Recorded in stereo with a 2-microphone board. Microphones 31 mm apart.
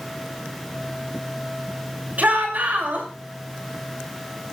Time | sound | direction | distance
2.2 | a shout | 60° right (ahead or behind) | 6 m